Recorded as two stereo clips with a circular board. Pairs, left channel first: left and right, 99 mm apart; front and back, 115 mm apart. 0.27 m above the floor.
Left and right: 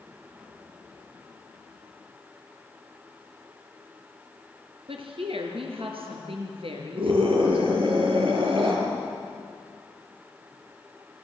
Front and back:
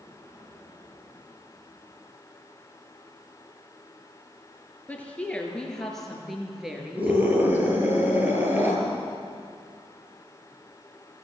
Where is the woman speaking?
75° right, 4 m; by 7.7 s 105° right, 4.5 m.